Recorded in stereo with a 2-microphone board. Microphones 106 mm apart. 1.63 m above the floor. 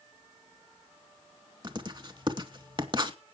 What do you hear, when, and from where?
1.6 s writing: 45° right (ahead or behind), 2.5 m